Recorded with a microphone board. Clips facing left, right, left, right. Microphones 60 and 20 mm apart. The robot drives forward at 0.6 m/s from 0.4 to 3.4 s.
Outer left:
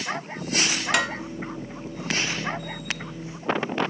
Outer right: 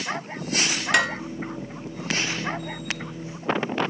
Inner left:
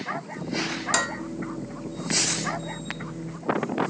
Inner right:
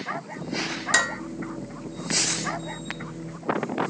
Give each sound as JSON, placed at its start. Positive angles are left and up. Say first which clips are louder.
{"t": 0.9, "sound": "dishes clattering", "louder": "outer right 4 dB, inner right 4 dB", "side_deg": 0, "distance_m": 1.6}